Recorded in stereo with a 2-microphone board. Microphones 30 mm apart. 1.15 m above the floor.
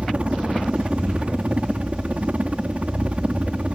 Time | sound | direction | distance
0.0 | a helicopter | 45° right (ahead or behind) | ?